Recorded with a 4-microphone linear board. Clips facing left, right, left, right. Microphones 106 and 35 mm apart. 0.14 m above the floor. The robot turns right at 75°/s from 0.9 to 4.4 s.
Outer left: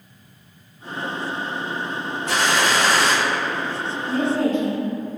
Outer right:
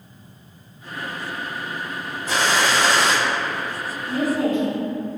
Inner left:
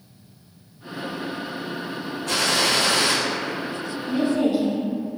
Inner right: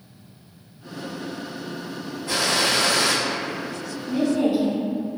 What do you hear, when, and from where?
2.3 s a gunshot: 85° left, 0.9 m; by 3.1 s 150° left, 0.9 m
4.1 s a woman speaking: centre (ahead or behind), 1.2 m; by 5.1 s 10° right (ahead or behind), 1.2 m